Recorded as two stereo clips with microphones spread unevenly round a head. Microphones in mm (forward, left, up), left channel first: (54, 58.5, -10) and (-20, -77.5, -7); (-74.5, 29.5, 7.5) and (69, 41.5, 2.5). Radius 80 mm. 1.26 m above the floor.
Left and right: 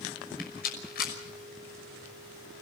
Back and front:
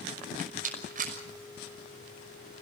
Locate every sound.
0.4 s a rattle: 35° left, 6 m